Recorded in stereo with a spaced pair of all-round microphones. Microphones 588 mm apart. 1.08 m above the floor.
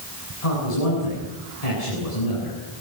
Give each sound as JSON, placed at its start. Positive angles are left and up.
{"t": 0.4, "sound": "a man speaking", "side_deg": 85, "distance_m": 9.5}